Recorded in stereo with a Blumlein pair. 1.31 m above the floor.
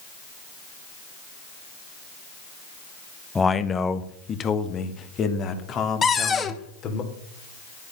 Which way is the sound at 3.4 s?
10° left.